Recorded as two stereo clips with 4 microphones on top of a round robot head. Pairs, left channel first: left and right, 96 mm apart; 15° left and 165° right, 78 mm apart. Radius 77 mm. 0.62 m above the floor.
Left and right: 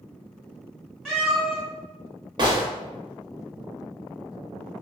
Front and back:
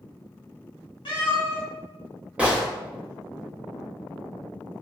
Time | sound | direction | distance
1.1 | a cat meowing | 5° left | 2.0 m
2.4 | a gunshot | 95° right | 0.8 m